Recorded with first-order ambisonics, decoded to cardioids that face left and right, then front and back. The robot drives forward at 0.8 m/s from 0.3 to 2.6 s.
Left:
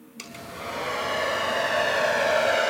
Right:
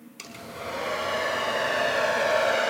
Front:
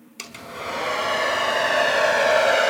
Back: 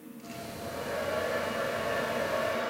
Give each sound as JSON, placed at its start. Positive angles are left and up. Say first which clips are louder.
{"t": 0.2, "sound": "a hair dryer", "louder": "left 1 dB, front 8 dB", "azimuth_deg": 0, "distance_m": 4.5}